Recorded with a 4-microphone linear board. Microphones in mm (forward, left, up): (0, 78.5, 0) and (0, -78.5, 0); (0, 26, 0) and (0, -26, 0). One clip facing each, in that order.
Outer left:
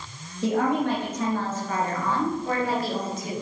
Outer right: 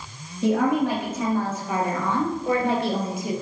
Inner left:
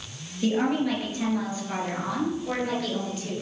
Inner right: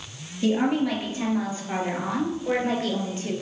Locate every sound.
0.4 s a woman speaking: centre (ahead or behind), 2.5 m; by 3.3 s 30° right (ahead or behind), 2.5 m